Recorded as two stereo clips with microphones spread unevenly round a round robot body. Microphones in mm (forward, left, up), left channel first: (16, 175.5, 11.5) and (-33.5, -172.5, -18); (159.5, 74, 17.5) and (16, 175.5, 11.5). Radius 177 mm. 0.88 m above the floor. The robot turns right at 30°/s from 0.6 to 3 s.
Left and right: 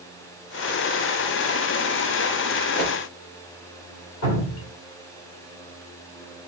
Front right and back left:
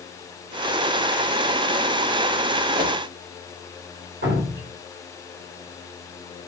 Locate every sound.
2.8 s a whoosh: 140° left, 1.2 m; by 3.0 s 150° left, 1.2 m
4.2 s dripping: 130° left, 1.9 m